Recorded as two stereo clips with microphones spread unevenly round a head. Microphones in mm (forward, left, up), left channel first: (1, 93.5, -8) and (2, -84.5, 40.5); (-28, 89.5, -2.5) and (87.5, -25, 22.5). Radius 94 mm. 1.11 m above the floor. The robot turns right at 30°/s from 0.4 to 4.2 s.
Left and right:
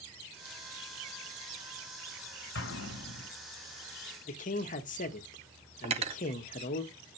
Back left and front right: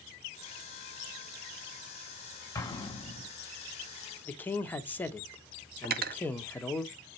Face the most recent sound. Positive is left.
turn(degrees=-45)